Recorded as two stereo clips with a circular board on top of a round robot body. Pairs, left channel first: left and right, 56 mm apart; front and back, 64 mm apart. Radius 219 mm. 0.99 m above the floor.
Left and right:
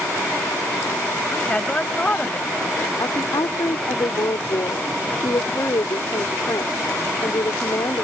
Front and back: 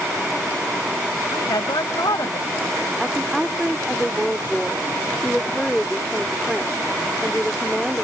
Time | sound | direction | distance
1.3 | a woman speaking | 20° left | ?
3.0 | a woman speaking | 95° left | ?